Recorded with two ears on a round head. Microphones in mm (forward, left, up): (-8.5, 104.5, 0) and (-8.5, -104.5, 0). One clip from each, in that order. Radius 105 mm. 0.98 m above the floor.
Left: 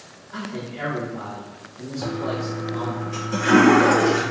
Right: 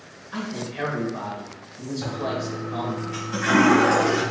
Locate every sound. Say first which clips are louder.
0.3 s a man speaking: right 1 dB; 40° right (ahead or behind), 1.2 m
2.0 s a toilet flushing: left 1 dB; 20° left (ahead or behind), 1.4 m